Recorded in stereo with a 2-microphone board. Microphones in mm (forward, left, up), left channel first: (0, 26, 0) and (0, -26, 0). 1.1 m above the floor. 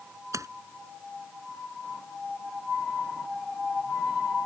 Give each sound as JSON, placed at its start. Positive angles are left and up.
{"t": 0.3, "sound": "a splash", "side_deg": -90}